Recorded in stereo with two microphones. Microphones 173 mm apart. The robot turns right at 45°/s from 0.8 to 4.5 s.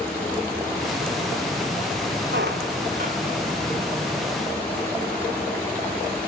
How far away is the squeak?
About 1.6 m.